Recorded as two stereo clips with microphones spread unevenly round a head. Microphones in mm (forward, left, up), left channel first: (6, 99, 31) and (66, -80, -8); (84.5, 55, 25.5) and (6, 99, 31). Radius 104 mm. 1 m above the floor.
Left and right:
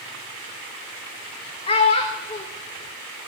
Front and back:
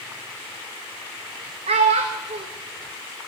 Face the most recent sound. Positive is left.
turn(degrees=175)